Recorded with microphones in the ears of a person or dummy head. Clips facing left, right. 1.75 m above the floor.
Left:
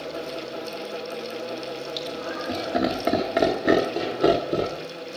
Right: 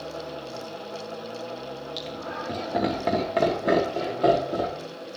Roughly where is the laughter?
Centre.